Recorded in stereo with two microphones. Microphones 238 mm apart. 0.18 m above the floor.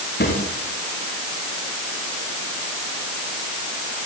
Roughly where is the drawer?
Left.